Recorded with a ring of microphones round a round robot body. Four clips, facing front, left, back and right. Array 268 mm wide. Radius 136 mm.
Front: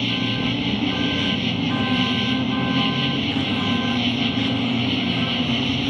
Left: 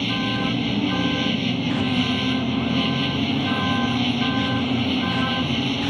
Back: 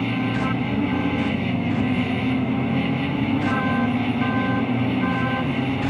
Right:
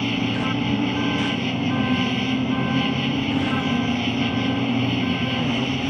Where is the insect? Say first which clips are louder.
Right 1 dB, back 1 dB; 5° left.